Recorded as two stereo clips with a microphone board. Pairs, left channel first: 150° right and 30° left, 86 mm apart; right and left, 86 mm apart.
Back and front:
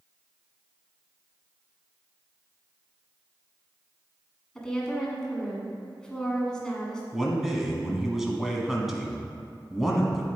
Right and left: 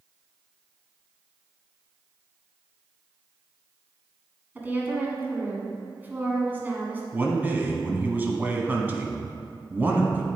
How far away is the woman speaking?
About 1.3 m.